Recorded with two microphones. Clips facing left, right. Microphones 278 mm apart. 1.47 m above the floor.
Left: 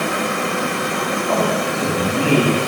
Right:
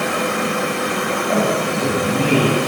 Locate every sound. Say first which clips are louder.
1.3 s a man speaking: right 2 dB; 15° right (ahead or behind), 9 m